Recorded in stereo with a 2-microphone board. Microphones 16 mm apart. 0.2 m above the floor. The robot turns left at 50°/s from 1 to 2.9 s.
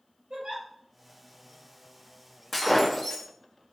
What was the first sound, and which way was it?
A giggle, 75° right (ahead or behind).